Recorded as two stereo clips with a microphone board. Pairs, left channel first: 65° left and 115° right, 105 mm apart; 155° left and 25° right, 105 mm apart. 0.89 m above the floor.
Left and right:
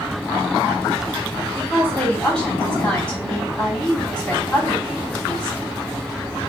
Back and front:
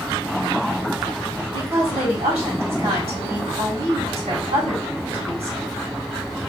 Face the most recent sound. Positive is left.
turn(degrees=-10)